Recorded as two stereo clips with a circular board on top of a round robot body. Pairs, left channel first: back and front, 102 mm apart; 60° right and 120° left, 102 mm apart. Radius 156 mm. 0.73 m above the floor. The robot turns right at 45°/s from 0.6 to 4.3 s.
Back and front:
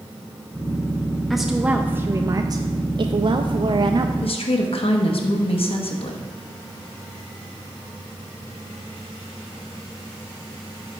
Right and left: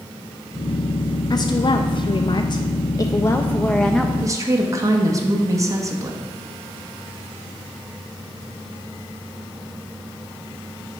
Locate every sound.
1.3 s a woman speaking: 95° right, 0.5 m; by 4.1 s 35° left, 0.5 m
4.2 s a woman speaking: 170° left, 1.0 m; by 6.2 s 175° left, 1.0 m